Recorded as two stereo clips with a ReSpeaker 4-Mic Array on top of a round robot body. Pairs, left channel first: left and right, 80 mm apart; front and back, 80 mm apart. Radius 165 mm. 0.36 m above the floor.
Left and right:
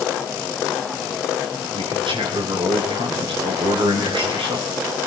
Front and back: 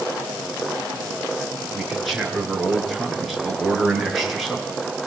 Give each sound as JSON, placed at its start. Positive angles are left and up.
{"t": 1.7, "sound": "a man speaking", "azimuth_deg": -90, "distance_m": 6.5}